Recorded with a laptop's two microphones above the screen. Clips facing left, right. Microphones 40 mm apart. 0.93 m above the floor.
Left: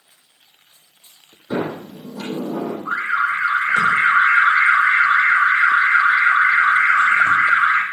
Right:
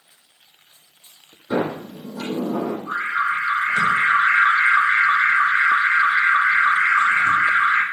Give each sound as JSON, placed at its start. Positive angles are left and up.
{"t": 1.5, "sound": "a sliding door", "side_deg": -20, "distance_m": 6.0}
{"t": 2.9, "sound": "an alarm", "side_deg": 50, "distance_m": 3.0}